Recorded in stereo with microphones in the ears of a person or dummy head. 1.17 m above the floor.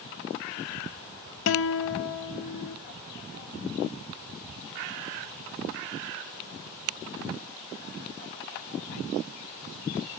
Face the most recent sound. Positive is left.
turn(degrees=65)  # may be behind; listen again after turning